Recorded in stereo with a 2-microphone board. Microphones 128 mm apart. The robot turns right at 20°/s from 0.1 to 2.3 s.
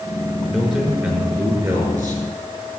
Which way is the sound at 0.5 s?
Straight behind.